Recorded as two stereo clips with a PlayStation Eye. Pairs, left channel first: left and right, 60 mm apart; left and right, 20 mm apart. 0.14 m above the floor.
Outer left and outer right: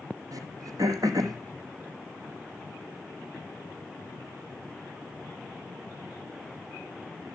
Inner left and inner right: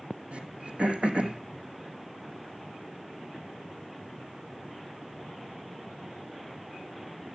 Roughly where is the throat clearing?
Right.